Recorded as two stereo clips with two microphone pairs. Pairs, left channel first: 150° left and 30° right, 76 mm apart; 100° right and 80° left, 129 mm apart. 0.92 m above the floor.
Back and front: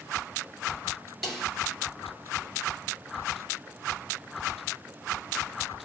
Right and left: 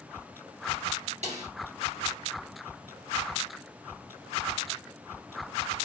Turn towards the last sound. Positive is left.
turn(degrees=65)